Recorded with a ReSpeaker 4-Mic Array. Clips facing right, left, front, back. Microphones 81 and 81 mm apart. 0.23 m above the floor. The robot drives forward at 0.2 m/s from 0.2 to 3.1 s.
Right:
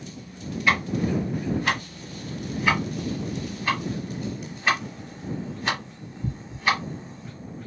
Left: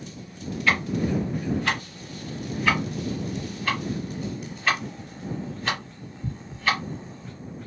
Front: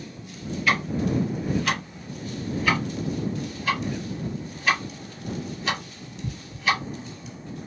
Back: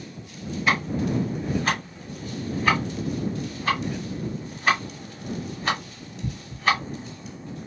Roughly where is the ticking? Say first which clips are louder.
Right 1 dB, even; behind right.